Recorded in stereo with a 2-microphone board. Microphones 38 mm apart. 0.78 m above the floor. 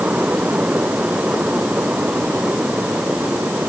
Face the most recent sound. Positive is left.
No sound to turn to.